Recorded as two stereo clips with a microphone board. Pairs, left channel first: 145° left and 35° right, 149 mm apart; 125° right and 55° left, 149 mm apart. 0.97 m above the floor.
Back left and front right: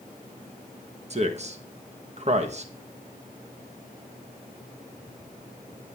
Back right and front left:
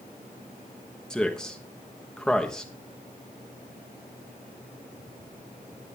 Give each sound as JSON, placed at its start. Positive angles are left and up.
{"t": 1.1, "sound": "a man speaking", "azimuth_deg": -40, "distance_m": 1.2}